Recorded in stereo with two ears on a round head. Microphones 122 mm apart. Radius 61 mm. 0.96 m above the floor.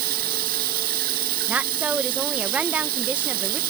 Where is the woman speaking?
10° right (ahead or behind).